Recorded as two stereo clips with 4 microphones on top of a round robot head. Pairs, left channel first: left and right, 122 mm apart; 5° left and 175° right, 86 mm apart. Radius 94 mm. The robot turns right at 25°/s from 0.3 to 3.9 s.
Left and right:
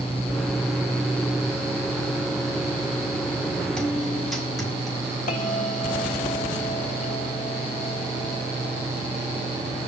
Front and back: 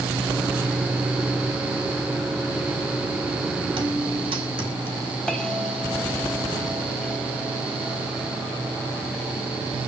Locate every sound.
3.8 s a guitar: 175° left, 4 m; by 5.2 s straight behind, 4 m
5.3 s a bell: 90° left, 2.5 m